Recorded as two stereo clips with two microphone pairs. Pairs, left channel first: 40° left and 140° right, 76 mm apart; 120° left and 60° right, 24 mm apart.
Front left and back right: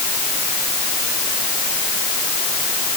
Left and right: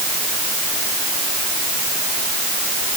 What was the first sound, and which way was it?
Only background noise.